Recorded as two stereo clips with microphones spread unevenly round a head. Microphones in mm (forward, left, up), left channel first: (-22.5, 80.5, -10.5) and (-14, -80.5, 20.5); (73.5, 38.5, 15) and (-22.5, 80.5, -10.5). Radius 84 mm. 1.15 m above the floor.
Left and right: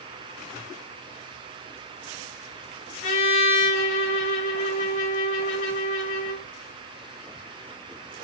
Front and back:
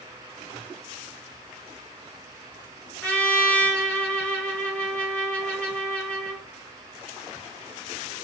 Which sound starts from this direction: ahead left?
A trumpet, at 3.0 s.